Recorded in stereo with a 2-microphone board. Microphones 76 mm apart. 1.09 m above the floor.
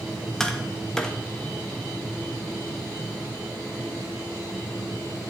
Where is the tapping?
10° left (ahead or behind), 1.8 m.